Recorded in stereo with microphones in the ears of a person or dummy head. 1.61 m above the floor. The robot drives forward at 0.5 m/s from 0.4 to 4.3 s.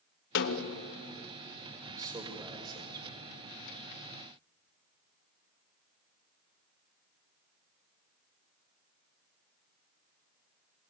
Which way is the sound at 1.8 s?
15° right (ahead or behind).